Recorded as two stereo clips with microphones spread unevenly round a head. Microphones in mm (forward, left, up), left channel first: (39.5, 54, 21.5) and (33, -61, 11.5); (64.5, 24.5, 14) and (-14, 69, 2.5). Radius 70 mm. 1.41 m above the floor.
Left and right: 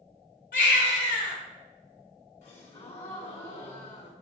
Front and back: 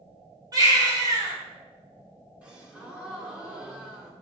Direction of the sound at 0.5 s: 100° left.